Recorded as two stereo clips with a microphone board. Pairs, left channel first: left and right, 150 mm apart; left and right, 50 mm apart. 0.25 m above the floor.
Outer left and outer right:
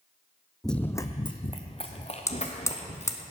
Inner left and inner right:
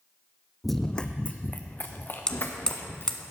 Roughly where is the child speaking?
No child speaking in this recording.